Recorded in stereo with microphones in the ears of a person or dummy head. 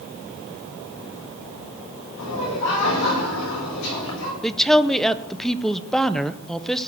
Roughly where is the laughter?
Left.